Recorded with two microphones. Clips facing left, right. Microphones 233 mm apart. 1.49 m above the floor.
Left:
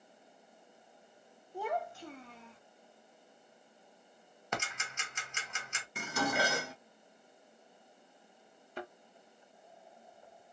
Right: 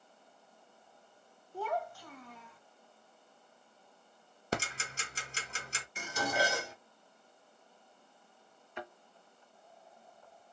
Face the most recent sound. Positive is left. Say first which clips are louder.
# left 2 dB
turn(degrees=35)  # may be behind; listen again after turning